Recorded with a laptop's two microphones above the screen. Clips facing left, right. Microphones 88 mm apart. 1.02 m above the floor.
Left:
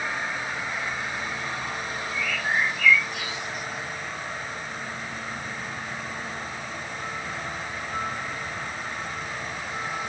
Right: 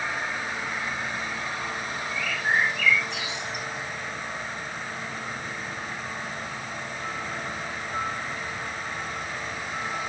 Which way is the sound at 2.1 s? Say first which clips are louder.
Right 1 dB; 80° right.